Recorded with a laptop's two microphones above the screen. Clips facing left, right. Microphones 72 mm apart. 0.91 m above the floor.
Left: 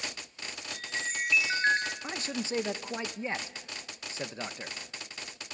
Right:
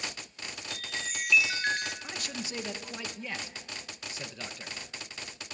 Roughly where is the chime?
Left.